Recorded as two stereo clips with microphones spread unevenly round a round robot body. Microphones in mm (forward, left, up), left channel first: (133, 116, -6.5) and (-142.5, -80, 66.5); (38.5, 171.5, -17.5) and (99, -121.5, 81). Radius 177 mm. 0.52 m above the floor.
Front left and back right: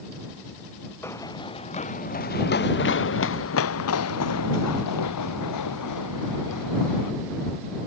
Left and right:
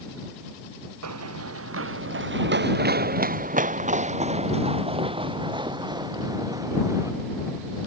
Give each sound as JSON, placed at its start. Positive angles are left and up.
{"t": 1.0, "sound": "running footsteps", "azimuth_deg": -50}